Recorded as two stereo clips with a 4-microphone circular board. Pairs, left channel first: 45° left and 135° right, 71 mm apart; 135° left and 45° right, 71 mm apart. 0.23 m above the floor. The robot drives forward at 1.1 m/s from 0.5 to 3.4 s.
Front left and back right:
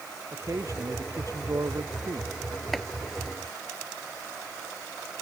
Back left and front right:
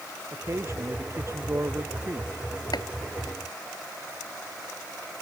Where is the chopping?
130° left; by 2.9 s 135° left.